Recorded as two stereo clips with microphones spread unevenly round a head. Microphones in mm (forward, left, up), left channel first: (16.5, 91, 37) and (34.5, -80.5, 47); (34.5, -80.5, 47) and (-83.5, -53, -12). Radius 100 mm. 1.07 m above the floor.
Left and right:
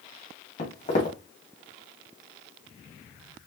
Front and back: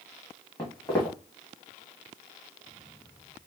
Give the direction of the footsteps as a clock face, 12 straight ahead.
10 o'clock.